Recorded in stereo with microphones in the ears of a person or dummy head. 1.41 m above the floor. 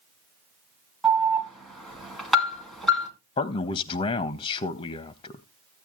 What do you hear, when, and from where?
1.0 s an alarm: 5° left (ahead or behind), 1.9 m
3.4 s a man speaking: 35° left (ahead or behind), 0.5 m